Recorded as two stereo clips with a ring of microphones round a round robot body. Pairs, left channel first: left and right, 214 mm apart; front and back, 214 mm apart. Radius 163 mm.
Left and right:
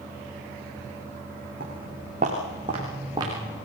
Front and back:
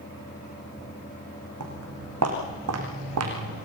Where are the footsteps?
155° right, 4.5 m; by 3.6 s 170° right, 4 m.